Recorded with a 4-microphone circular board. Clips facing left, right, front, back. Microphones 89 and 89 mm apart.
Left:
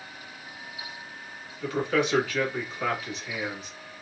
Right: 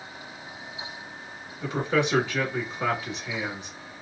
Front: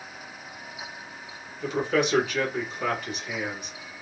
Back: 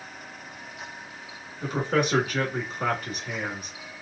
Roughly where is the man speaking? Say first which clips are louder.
Even, front 1 dB; behind right.